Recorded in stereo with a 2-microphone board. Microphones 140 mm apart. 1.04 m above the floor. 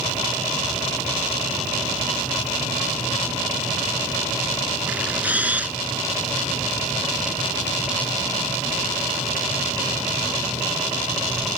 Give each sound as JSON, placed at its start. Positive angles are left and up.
{"t": 4.9, "sound": "a camera shutter", "side_deg": -10}